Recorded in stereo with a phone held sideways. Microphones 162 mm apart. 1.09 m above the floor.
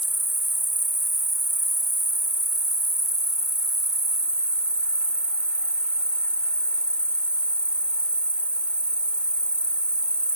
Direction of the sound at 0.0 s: 5° left (ahead or behind).